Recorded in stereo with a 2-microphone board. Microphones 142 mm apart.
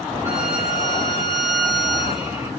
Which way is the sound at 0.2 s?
20° right (ahead or behind).